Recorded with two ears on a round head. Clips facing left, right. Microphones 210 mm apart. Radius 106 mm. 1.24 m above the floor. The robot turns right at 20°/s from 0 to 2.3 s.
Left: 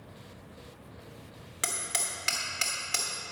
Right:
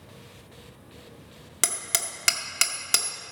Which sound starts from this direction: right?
Hammering, at 1.6 s.